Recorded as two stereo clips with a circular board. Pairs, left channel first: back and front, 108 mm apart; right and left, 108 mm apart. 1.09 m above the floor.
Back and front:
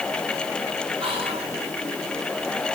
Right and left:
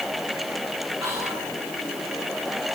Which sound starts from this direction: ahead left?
Whispering, at 1.0 s.